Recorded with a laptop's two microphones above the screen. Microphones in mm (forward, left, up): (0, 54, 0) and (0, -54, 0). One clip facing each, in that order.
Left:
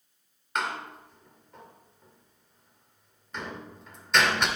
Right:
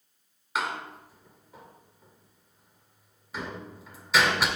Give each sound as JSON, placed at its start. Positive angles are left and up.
{"t": 0.6, "sound": "a door slam", "side_deg": -5, "distance_m": 1.9}